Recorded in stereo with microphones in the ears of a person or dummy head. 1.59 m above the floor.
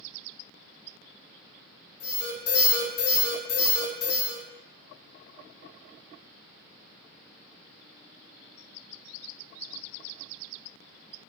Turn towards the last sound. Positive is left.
turn(degrees=60)  # may be behind; listen again after turning